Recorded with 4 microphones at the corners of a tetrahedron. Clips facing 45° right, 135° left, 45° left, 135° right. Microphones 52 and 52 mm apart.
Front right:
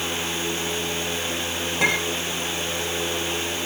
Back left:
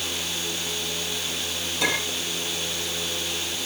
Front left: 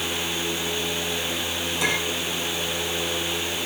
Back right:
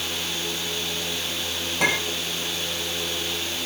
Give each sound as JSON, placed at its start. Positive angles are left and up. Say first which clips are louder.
{"t": 1.8, "sound": "a clink", "louder": "front right 3 dB, back right 2 dB", "azimuth_deg": -85, "distance_m": 8.0}